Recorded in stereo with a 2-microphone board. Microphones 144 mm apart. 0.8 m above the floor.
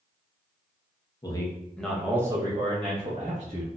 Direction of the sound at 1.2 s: 30° left (ahead or behind).